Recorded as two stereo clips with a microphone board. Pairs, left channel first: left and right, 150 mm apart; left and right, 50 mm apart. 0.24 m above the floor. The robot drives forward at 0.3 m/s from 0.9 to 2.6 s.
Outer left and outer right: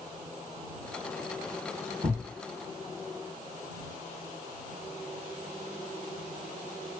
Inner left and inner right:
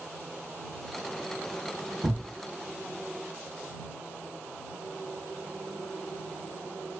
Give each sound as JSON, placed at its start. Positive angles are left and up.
{"t": 2.0, "sound": "a thud", "side_deg": -25, "distance_m": 0.7}